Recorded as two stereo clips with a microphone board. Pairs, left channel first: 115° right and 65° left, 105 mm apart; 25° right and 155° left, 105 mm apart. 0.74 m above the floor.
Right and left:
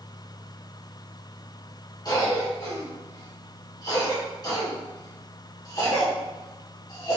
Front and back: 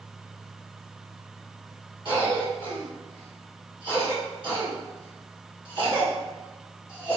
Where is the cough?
165° right, 1.6 m.